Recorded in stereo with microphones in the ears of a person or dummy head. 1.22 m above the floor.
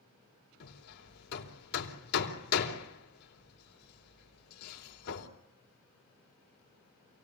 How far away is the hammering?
About 3 m.